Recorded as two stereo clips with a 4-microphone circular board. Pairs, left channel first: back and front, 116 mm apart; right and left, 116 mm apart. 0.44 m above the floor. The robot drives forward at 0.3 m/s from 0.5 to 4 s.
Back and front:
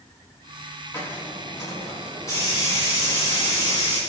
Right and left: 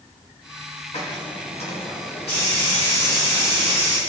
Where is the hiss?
115° right, 4 m; by 4.0 s 125° right, 4.5 m.